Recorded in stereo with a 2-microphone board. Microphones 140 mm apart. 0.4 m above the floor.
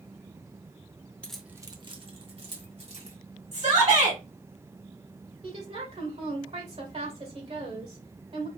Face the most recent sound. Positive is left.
turn(degrees=-45)  # may be behind; listen again after turning